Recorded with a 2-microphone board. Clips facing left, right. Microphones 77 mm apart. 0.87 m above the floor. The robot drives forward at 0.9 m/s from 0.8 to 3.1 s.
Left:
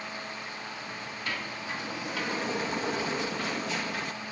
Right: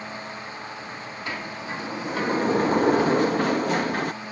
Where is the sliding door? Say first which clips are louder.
Right 3 dB; 20° right (ahead or behind); by 4.1 s 50° right (ahead or behind).